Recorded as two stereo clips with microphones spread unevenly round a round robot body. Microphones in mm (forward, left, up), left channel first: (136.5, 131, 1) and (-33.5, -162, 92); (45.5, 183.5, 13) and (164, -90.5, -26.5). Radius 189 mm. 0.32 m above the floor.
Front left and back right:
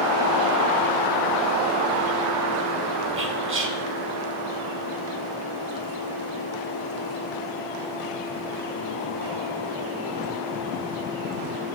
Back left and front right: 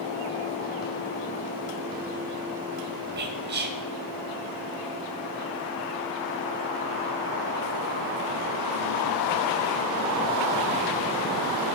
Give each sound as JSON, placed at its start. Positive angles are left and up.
{"t": 3.2, "sound": "whispering", "azimuth_deg": -65, "distance_m": 1.2}